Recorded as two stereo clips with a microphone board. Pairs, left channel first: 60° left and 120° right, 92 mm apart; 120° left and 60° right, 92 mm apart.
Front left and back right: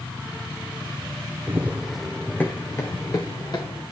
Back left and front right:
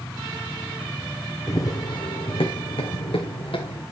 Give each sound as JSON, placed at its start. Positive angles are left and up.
{"t": 1.5, "sound": "running footsteps", "azimuth_deg": 175, "distance_m": 1.4}